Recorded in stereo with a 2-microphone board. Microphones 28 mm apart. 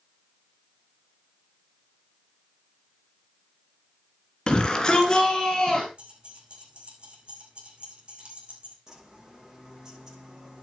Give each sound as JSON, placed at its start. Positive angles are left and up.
{"t": 4.5, "sound": "a shout", "side_deg": 35, "distance_m": 2.0}
{"t": 6.0, "sound": "keys jangling", "side_deg": -40, "distance_m": 7.0}
{"t": 8.9, "sound": "a bird", "side_deg": -20, "distance_m": 8.5}